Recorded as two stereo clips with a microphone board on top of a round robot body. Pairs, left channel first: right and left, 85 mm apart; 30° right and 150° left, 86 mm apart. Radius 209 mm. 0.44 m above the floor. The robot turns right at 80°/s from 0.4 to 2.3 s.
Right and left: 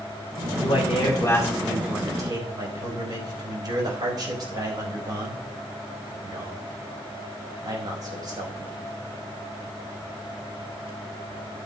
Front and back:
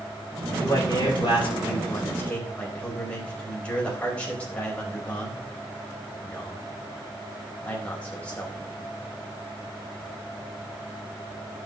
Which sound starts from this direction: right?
A man speaking, at 0.5 s.